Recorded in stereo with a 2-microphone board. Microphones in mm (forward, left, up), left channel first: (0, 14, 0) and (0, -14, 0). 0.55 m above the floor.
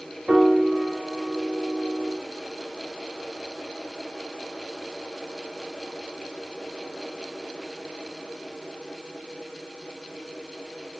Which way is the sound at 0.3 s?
45° right (ahead or behind).